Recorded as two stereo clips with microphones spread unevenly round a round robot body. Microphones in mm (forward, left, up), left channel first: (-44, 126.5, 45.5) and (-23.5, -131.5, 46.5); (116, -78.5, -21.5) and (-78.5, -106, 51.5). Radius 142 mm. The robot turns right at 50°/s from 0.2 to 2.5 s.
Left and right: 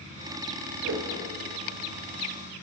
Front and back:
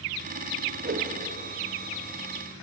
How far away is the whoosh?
About 4 m.